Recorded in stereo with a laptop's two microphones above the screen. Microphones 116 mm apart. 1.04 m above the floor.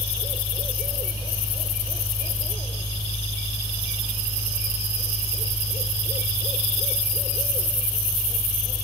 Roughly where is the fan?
Centre.